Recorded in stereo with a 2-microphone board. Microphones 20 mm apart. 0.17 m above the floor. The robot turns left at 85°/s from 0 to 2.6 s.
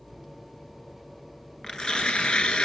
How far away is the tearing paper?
About 0.9 m.